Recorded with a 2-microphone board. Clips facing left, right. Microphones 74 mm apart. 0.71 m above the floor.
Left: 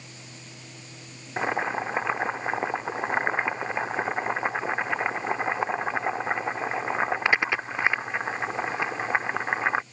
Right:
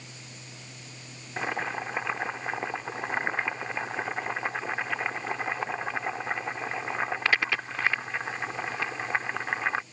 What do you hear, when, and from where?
1.4 s boiling: 20° left (ahead or behind)